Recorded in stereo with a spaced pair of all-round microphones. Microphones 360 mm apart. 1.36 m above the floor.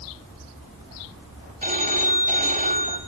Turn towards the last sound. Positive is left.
turn(degrees=-25)  # may be behind; listen again after turning